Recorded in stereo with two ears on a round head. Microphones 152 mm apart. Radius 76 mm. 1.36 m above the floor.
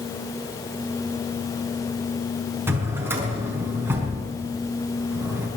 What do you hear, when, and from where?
2.7 s a drawer: 15° right (ahead or behind), 5 m